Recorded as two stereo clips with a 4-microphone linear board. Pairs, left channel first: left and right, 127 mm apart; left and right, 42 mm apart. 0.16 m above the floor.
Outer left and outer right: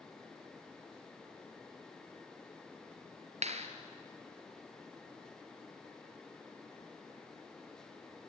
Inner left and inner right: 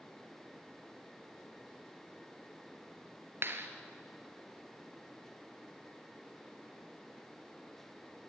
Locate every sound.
3.4 s a clap: 60° right (ahead or behind), 2.0 m